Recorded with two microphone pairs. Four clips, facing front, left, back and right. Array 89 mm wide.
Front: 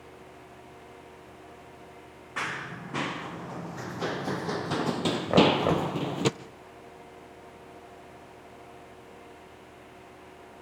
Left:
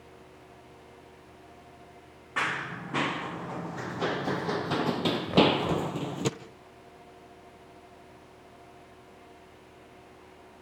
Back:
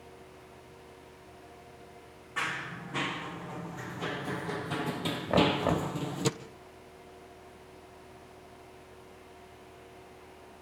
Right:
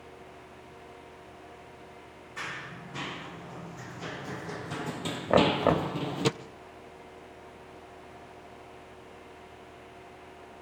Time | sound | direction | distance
2.4 | running footsteps | 75° left | 2.5 m
5.3 | knocking | 70° right | 2.5 m